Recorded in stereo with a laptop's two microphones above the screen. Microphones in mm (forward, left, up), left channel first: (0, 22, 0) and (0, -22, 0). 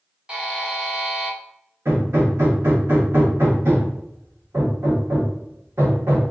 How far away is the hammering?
About 1.6 m.